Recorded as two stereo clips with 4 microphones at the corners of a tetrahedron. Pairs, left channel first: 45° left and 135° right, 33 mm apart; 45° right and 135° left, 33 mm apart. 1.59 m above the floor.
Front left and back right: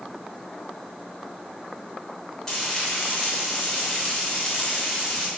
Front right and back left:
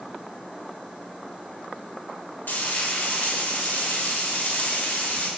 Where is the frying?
35° right, 7 m.